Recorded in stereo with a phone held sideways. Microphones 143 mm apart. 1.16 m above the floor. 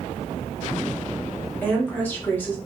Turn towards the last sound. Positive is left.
turn(degrees=15)  # may be behind; listen again after turning